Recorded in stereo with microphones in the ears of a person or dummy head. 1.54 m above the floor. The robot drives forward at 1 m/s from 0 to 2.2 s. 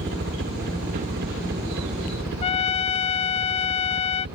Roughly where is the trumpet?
Left.